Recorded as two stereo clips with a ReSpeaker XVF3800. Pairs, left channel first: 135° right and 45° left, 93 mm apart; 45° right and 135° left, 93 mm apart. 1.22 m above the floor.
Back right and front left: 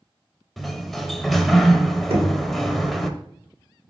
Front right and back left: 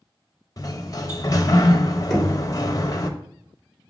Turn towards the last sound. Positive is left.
turn(degrees=40)